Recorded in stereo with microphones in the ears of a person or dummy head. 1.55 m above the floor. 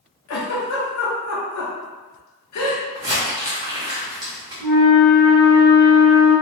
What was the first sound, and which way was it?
A giggle, 85° left.